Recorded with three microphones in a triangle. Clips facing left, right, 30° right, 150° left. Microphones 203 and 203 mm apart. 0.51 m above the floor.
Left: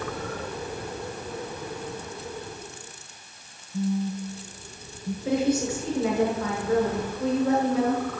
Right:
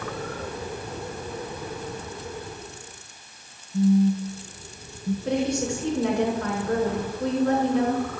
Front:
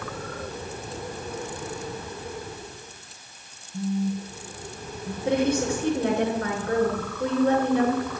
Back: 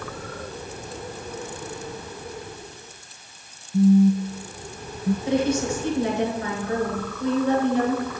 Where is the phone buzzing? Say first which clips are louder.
Right 8 dB, back 11 dB; straight behind, 0.5 m.